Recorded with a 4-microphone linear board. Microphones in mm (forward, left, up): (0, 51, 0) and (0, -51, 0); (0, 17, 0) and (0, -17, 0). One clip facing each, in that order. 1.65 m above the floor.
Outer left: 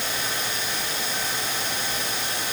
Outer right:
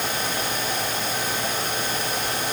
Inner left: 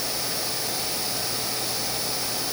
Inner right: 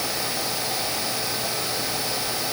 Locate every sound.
Only background noise.